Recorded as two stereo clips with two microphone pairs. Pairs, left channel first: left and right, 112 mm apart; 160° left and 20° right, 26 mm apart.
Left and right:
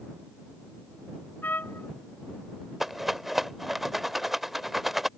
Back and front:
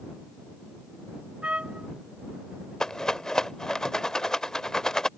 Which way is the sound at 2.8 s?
Straight behind.